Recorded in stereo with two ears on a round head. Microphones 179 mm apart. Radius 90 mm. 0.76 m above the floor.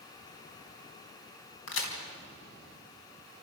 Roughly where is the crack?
Left.